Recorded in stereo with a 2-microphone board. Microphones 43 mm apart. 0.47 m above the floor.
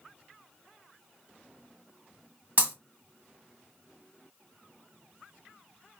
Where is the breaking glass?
35° right (ahead or behind), 1.6 m.